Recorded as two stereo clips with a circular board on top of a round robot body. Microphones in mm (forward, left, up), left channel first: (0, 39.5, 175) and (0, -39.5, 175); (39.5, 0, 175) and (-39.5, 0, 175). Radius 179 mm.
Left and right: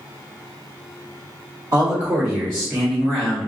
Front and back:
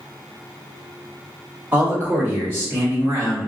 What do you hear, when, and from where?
1.7 s a man speaking: 125° right, 1.8 m; by 3.5 s 150° left, 1.5 m